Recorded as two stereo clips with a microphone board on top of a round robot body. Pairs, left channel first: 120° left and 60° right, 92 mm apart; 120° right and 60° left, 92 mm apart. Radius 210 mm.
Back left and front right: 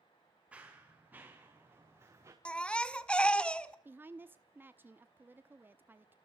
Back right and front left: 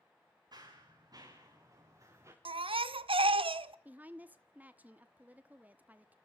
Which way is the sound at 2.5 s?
40° left.